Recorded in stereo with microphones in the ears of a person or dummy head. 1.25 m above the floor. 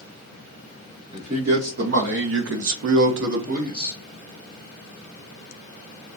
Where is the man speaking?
40° right (ahead or behind), 1.5 m; by 3.9 s 25° right (ahead or behind), 0.9 m.